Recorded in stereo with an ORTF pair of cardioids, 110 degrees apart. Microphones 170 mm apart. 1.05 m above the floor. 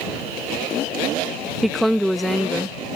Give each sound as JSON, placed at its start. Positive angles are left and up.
{"t": 1.6, "sound": "a woman speaking", "azimuth_deg": 0}